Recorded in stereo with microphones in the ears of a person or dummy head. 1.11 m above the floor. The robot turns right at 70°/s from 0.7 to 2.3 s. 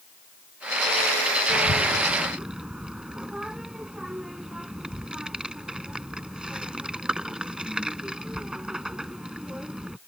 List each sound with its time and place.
1.5 s a child speaking: 50° left (ahead or behind); by 10.0 s 5° right (ahead or behind)